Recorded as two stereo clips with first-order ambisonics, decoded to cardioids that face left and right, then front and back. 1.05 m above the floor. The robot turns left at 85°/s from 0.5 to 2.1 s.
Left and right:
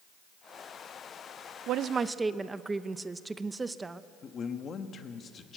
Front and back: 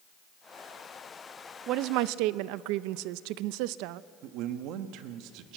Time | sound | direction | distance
1.7 | a woman speaking | 130° right | 0.6 m
4.2 | a man speaking | 155° left | 1.3 m